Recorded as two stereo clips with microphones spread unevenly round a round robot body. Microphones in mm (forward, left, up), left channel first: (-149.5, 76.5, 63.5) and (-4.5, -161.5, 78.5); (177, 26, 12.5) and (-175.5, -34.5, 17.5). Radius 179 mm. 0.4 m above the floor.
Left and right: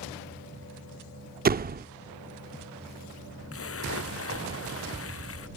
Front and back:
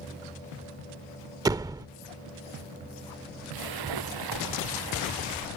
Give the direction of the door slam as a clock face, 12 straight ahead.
3 o'clock.